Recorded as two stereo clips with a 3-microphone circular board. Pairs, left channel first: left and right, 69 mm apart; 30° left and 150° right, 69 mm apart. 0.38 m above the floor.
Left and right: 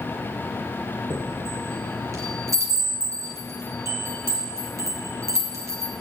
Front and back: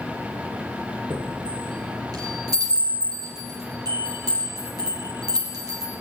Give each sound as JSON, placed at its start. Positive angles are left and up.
{"t": 1.1, "sound": "a chime", "azimuth_deg": -130, "distance_m": 4.0}